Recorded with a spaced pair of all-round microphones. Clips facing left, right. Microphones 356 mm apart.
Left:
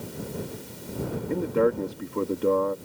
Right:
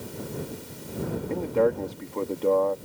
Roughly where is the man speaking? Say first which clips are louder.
Left 1 dB; centre.